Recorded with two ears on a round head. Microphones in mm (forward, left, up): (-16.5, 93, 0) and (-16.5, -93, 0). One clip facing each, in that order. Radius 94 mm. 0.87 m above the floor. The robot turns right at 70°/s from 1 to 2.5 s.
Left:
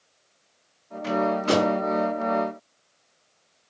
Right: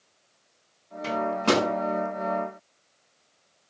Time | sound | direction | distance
1.0 | a microwave | 40° right (ahead or behind) | 8 m